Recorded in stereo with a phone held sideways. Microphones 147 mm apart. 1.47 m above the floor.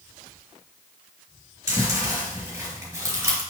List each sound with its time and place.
1.7 s chewing: 20° right (ahead or behind), 3.5 m